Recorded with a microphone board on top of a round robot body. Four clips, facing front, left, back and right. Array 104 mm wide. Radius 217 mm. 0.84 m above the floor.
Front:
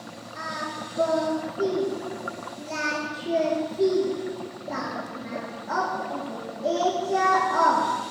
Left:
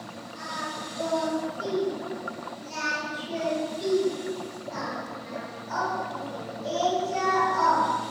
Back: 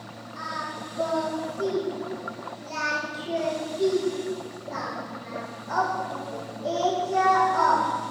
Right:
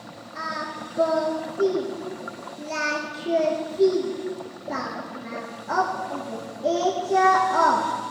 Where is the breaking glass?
I don't hear breaking glass.